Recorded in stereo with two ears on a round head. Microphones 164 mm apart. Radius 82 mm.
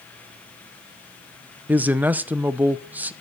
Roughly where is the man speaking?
Centre.